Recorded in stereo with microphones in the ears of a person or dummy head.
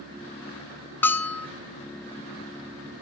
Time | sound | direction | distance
1.0 | a bell | 10° left (ahead or behind) | 1.3 m